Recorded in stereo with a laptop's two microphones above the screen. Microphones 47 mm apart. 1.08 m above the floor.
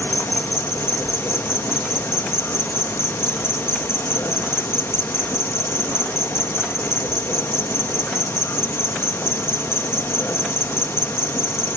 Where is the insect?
60° left (ahead or behind).